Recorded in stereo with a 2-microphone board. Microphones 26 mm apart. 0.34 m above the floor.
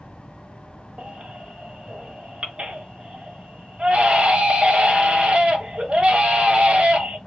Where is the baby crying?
40° right (ahead or behind), 0.9 m.